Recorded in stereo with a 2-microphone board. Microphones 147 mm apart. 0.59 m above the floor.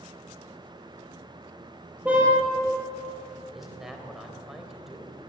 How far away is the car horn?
About 5.5 m.